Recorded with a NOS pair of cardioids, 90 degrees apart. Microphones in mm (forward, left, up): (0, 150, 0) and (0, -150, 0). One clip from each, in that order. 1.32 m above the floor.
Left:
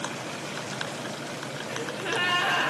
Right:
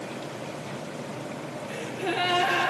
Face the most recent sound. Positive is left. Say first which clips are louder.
# even
turn(degrees=45)